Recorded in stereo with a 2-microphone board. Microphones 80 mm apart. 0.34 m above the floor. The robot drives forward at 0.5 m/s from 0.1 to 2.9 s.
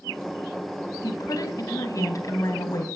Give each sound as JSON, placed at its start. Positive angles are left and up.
{"t": 1.0, "sound": "a woman speaking", "side_deg": 50, "distance_m": 2.5}